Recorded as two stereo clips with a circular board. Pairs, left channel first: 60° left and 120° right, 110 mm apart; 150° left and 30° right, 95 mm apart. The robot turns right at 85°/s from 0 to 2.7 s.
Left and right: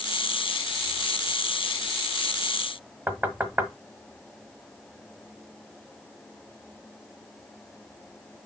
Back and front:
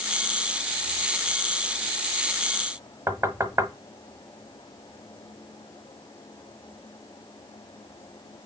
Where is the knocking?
60° right, 1.0 m.